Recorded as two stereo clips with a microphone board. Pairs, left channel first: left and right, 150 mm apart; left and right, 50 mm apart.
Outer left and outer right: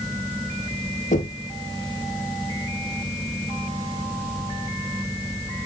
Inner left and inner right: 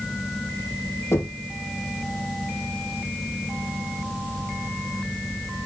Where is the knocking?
60° left (ahead or behind), 2.5 m.